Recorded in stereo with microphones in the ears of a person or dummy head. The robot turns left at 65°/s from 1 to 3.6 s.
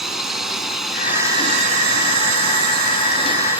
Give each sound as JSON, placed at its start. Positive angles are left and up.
{"t": 0.0, "sound": "a drone", "azimuth_deg": -5}